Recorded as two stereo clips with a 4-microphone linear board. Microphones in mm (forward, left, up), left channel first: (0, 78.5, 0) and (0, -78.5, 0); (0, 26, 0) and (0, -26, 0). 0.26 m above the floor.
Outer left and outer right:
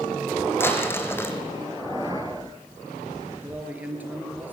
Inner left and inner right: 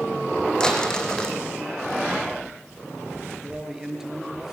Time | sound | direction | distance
0.6 | crumpling | 15° left (ahead or behind) | 2.5 m
3.4 | a man speaking | 10° right (ahead or behind) | 4.5 m